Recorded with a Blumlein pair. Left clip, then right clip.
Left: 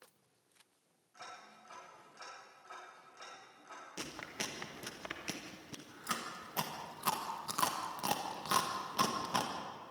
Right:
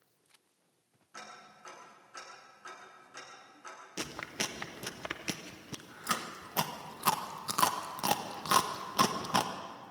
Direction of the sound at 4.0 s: 15° right.